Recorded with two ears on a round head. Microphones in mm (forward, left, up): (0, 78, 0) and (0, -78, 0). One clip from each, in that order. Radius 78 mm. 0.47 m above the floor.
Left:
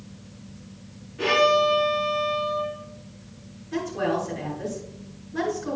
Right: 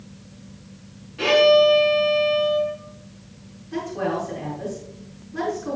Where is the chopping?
No chopping in this recording.